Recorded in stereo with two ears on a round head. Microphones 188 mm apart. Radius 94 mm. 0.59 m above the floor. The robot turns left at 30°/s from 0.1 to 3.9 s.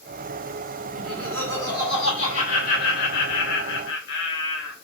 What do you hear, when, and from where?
1.0 s laughter: 170° right, 1.9 m; by 4.7 s 100° left, 1.9 m